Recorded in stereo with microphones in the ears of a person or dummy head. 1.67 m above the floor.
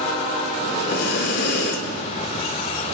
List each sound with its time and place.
0.6 s breathing: 75° left (ahead or behind), 2.5 m